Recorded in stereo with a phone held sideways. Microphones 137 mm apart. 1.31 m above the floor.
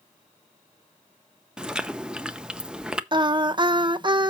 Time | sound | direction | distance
1.6 | chewing | 5° right (ahead or behind) | 0.6 m
3.1 | singing | 35° right (ahead or behind) | 0.6 m